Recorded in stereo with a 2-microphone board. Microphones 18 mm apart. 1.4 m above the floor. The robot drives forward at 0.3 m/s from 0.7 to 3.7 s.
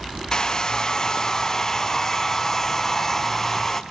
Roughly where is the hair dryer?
Left.